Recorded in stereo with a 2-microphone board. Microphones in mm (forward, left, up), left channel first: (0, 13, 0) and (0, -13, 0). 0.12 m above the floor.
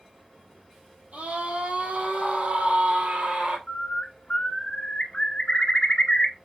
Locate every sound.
1.1 s a scream: 60° right (ahead or behind), 3 m; by 3.6 s 55° right (ahead or behind), 3.5 m
3.7 s a bird: 40° left (ahead or behind), 1.6 m